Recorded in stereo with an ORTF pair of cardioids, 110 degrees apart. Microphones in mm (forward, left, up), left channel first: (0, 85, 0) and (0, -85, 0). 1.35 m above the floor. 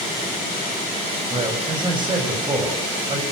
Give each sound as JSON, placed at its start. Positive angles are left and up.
{"t": 1.3, "sound": "a man speaking", "azimuth_deg": -30, "distance_m": 8.0}